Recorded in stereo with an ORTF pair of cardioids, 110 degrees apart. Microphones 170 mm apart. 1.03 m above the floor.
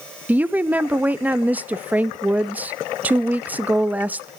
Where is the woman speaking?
10° right, 0.8 m.